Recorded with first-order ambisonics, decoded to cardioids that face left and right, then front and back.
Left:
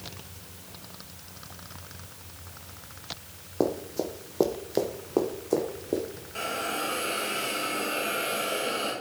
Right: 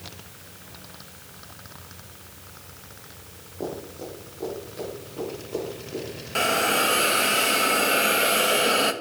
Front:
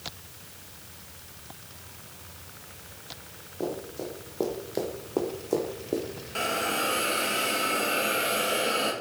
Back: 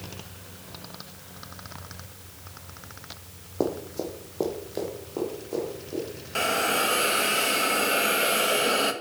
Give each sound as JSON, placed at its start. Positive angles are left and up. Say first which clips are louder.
{"t": 3.6, "sound": "running footsteps", "louder": "left 6 dB, back 5 dB", "azimuth_deg": 130, "distance_m": 1.8}
{"t": 6.3, "sound": "a hiss", "louder": "right 9 dB, back 4 dB", "azimuth_deg": -115, "distance_m": 0.9}